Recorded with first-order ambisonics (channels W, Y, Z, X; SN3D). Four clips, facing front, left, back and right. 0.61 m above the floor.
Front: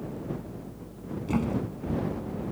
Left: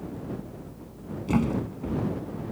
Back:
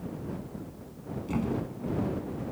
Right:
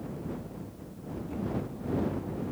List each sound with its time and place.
1.3 s a thud: 75° left